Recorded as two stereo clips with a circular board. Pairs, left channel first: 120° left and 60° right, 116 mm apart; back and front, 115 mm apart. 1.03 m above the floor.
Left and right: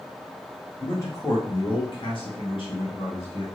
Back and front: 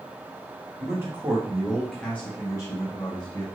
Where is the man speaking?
55° left, 1.3 m; by 3.5 s 145° left, 1.5 m.